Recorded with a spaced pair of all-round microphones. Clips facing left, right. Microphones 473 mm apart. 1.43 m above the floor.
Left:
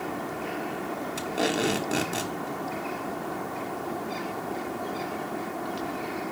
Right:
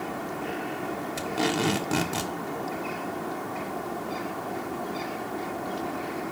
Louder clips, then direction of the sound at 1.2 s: Even; 20° right (ahead or behind).